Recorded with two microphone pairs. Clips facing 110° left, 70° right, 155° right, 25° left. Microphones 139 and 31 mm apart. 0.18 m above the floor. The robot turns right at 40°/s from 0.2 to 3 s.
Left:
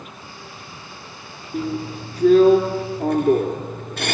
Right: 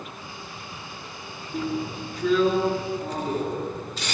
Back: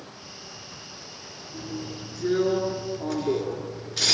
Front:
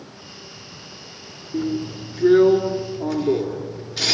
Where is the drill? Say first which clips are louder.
Left 3 dB, front 11 dB; 45° left, 3 m; by 4.1 s 105° left, 3 m.